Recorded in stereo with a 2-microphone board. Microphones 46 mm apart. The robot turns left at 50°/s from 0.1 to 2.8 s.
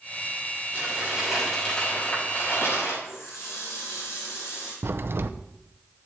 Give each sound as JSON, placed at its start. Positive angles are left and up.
{"t": 0.7, "sound": "crumpling", "azimuth_deg": -145, "distance_m": 6.0}
{"t": 3.0, "sound": "a running tap", "side_deg": 80, "distance_m": 6.5}
{"t": 4.8, "sound": "a crack", "side_deg": -55, "distance_m": 0.6}